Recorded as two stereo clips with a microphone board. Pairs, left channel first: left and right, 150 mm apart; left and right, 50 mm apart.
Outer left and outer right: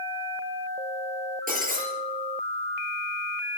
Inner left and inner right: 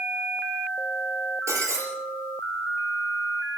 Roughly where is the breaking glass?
Right.